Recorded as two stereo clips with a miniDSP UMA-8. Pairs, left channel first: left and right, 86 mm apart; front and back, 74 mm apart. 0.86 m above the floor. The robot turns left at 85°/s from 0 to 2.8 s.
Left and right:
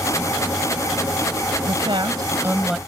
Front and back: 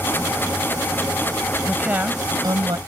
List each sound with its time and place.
1.6 s a woman speaking: 85° right; by 2.8 s straight behind